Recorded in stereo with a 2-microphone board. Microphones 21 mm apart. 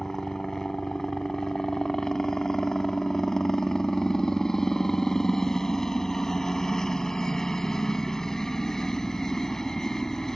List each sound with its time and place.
0.0 s a helicopter: 25° left (ahead or behind)